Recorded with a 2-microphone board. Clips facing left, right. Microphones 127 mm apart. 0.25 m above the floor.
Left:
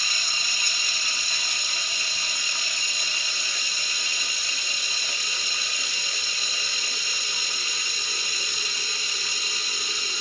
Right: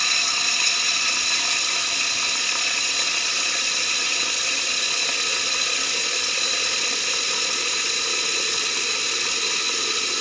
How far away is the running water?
About 0.9 m.